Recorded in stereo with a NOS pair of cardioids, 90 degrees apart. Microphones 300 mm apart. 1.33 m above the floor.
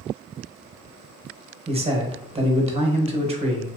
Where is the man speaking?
20° right, 1.0 m.